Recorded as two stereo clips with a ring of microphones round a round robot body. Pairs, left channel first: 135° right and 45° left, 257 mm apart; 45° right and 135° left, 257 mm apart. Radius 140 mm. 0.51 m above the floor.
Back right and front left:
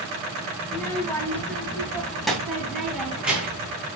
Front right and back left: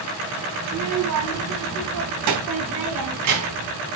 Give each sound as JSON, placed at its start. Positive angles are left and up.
{"t": 0.7, "sound": "a child speaking", "azimuth_deg": 145, "distance_m": 2.5}